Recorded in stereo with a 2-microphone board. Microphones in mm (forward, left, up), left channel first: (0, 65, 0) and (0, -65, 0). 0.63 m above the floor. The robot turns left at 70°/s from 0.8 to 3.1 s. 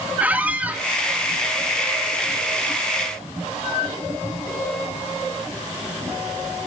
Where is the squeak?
10° right (ahead or behind), 0.7 m; by 0.8 s 15° right (ahead or behind), 0.7 m.